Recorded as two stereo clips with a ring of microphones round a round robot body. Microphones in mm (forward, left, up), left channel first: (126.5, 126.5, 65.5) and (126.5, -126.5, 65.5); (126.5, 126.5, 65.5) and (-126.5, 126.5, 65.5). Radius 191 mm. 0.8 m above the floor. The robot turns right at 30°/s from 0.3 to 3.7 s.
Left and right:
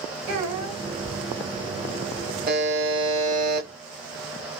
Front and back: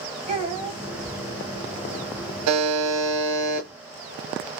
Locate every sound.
0.3 s a child speaking: 110° right, 3 m; by 0.8 s 95° right, 3 m
2.5 s a buzzer: 155° right, 0.9 m; by 3.7 s 120° right, 0.9 m